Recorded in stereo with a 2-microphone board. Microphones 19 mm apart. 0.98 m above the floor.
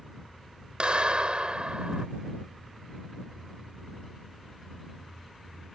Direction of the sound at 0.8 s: 50° right (ahead or behind).